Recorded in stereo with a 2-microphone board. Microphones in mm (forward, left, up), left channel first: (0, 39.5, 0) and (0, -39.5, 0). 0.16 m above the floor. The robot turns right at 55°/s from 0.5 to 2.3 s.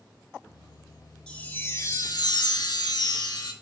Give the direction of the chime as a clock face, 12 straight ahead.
12 o'clock.